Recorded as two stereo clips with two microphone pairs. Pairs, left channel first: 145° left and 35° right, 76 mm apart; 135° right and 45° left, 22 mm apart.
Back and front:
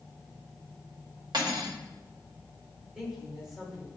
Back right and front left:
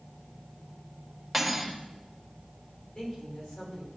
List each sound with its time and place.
1.3 s cutlery clinking: 45° right, 1.2 m
3.0 s a woman speaking: 115° right, 2.5 m